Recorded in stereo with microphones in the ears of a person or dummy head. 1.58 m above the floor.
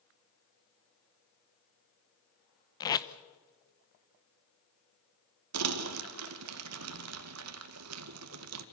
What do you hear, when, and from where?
2.8 s tape being pulled: 25° left (ahead or behind), 0.9 m
5.5 s crumpling: 85° right, 2 m